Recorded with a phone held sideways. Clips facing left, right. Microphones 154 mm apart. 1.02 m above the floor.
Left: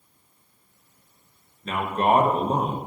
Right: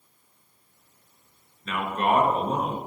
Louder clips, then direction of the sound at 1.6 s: Left 3 dB; 30° left (ahead or behind).